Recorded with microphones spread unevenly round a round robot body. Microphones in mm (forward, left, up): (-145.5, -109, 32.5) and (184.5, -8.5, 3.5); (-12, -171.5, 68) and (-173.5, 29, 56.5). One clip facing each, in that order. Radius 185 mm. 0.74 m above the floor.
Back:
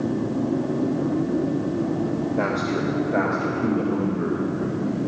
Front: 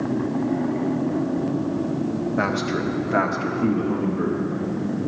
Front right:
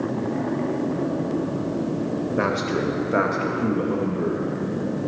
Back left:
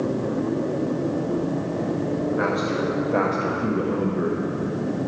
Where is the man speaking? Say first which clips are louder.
Even, even; 15° right, 1.2 m; by 4.4 s 75° left, 1.1 m.